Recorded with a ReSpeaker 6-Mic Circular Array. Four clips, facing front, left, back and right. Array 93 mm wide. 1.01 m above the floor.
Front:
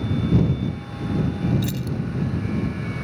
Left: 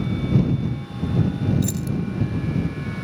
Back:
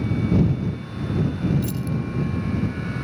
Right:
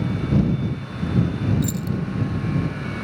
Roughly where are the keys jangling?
Ahead.